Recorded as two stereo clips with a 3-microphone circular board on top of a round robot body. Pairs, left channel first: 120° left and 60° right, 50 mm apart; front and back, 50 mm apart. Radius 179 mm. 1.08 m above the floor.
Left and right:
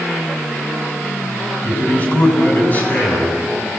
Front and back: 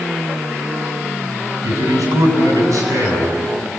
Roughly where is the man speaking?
Behind.